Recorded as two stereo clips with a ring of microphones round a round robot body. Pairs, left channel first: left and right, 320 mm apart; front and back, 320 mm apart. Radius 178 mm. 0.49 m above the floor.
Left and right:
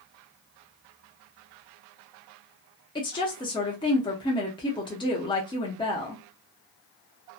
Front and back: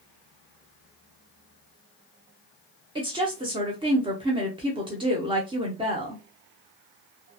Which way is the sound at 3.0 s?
135° left.